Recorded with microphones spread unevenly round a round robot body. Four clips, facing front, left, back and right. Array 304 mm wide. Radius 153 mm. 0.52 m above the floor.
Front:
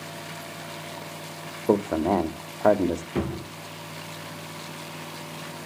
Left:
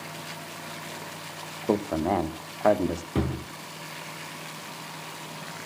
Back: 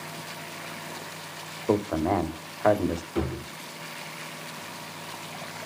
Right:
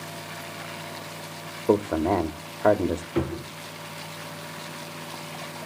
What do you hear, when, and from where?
1.7 s a man speaking: 45° right, 1.1 m
3.1 s a drawer: 60° left, 3.5 m